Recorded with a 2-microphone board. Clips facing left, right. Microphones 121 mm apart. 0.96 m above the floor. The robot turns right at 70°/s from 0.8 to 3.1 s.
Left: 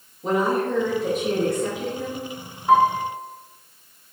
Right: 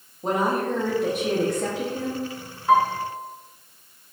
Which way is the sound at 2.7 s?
10° left (ahead or behind).